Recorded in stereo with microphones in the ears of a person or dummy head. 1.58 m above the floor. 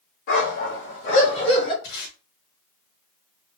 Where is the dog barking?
40° left (ahead or behind), 1.2 m; by 1.7 s 20° left (ahead or behind), 1.2 m.